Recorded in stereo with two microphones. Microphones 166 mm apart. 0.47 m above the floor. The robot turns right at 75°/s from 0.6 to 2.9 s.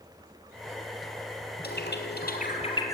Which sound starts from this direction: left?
A bird, at 1.6 s.